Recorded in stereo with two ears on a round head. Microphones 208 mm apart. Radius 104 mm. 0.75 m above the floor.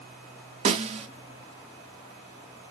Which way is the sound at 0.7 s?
25° right (ahead or behind).